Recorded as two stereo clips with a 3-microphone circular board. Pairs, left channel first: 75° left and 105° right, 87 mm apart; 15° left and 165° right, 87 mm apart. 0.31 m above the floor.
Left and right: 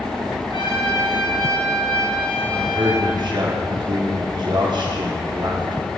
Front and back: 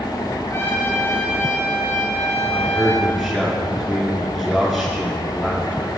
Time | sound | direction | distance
0.5 | a trumpet | 75° left | 2.5 m
2.5 | a man speaking | 75° right | 3.5 m